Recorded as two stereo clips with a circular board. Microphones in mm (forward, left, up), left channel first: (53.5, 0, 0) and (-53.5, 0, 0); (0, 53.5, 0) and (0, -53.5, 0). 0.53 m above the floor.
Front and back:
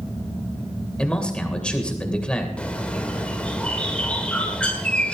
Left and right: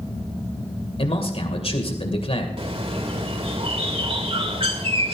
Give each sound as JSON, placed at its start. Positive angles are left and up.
{"t": 1.0, "sound": "a man speaking", "azimuth_deg": 80, "distance_m": 2.5}
{"t": 2.6, "sound": "a bird", "azimuth_deg": -80, "distance_m": 2.0}